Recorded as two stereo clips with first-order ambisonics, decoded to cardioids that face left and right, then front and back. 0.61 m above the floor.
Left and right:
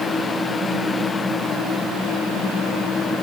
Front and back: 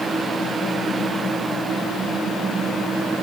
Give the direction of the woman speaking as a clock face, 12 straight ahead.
No woman speaking in this recording.